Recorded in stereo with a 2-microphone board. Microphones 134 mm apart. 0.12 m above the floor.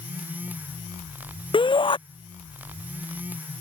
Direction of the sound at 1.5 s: 40° left (ahead or behind).